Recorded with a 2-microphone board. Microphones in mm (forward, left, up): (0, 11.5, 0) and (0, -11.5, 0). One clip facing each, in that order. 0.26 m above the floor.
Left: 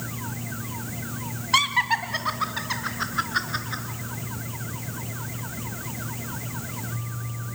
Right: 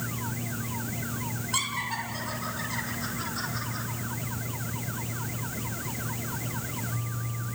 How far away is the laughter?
About 1.5 m.